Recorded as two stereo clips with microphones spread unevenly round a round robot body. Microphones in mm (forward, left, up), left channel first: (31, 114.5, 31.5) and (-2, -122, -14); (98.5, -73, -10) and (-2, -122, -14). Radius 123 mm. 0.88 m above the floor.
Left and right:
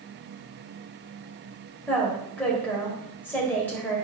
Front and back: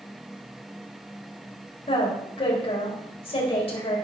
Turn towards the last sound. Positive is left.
turn(degrees=-5)